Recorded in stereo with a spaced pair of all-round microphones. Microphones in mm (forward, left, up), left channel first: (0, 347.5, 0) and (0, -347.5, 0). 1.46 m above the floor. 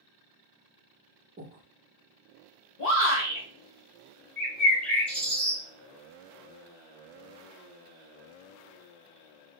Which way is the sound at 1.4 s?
20° right (ahead or behind).